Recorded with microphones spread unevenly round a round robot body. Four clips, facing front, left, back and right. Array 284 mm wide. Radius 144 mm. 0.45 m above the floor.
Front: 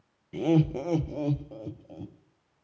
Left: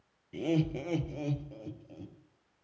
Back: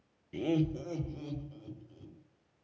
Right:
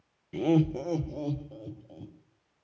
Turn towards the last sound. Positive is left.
turn(degrees=-5)